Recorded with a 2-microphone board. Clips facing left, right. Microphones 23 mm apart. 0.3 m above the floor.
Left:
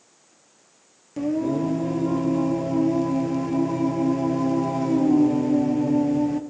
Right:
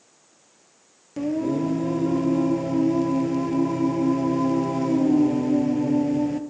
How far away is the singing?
About 1.2 m.